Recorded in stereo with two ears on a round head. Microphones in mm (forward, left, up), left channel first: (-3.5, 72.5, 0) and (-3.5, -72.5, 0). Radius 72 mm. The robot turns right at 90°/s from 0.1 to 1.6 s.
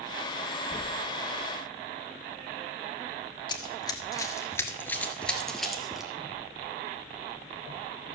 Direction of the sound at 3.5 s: 25° left (ahead or behind).